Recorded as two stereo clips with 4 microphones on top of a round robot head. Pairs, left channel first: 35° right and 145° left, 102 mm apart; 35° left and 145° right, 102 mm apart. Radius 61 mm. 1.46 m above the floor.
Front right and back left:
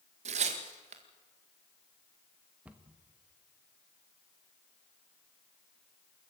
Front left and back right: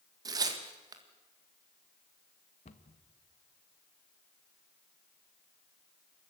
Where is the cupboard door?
65° left, 1.4 m.